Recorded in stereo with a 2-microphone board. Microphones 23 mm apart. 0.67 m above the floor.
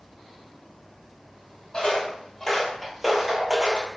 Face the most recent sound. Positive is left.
turn(degrees=-40)  # may be behind; listen again after turning